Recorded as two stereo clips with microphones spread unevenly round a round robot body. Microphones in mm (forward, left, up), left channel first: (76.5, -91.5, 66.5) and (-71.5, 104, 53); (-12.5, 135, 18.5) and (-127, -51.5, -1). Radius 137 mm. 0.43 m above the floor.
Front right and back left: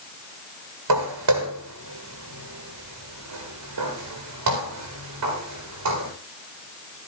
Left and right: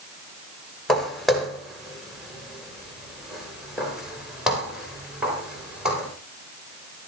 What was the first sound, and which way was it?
Footsteps, 150° left.